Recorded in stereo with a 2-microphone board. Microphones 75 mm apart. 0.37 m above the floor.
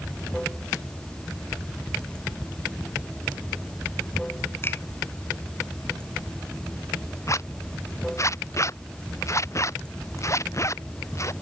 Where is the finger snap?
30° left (ahead or behind).